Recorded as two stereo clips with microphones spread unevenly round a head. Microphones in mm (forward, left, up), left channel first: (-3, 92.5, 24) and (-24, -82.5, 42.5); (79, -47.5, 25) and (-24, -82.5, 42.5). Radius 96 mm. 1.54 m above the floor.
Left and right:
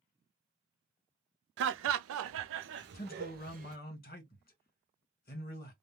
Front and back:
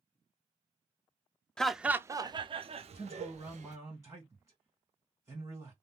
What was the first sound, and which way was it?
Laughter, 65° right.